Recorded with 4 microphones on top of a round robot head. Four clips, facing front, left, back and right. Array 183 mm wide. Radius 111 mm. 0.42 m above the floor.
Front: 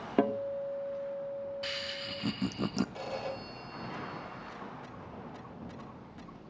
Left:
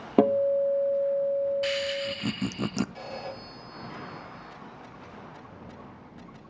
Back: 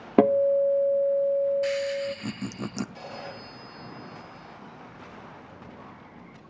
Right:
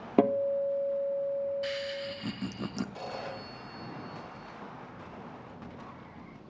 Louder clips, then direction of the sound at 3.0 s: Left 1 dB, front 2 dB; 50° right.